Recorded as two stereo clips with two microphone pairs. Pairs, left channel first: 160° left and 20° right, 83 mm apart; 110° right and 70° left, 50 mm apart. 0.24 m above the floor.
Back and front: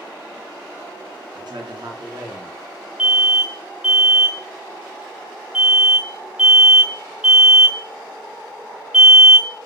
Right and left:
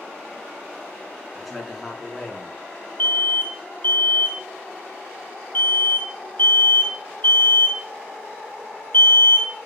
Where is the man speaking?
20° right, 2.5 m.